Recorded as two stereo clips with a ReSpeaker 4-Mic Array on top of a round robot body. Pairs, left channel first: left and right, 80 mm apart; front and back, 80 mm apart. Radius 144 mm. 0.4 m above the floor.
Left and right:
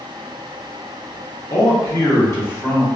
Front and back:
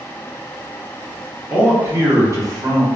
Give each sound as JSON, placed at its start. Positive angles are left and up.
{"t": 1.5, "sound": "a man speaking", "azimuth_deg": 105, "distance_m": 1.2}